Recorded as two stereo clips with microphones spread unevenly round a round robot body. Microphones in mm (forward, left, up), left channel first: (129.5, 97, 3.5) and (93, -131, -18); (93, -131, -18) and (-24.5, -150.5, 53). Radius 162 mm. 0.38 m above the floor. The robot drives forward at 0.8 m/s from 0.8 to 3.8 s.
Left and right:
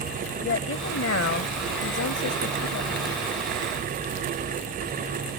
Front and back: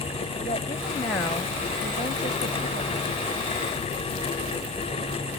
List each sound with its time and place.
0.4 s a woman speaking: 60° left; by 3.2 s 130° left